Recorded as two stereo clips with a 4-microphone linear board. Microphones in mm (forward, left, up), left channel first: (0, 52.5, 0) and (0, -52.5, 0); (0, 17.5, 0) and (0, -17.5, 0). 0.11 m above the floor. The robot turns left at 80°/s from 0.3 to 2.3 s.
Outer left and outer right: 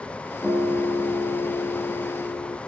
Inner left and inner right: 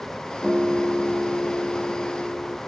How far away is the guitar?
About 7.5 m.